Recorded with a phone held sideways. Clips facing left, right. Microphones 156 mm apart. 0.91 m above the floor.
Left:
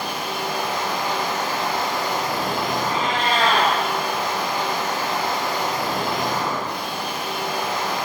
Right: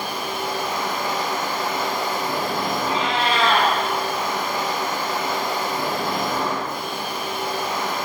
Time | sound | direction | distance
0.0 | a machine running | 85° left | 6 m
2.8 | a cat meowing | 45° left (ahead or behind) | 4 m